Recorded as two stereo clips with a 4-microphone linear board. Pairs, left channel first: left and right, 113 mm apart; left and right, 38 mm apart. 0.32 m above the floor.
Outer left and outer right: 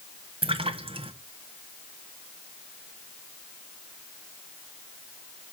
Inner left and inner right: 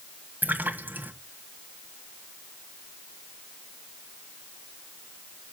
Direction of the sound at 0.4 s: 55° right (ahead or behind).